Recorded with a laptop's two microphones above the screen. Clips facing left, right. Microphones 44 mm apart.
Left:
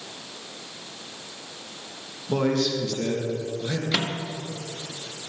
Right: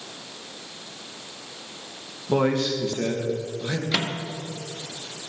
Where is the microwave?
10° right (ahead or behind), 1.2 m.